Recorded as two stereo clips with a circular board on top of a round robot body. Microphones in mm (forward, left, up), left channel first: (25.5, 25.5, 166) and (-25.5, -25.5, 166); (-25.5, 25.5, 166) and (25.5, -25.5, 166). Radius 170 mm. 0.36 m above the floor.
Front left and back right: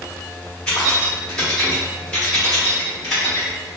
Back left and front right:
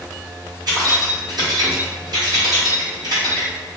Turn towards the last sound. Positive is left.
turn(degrees=-30)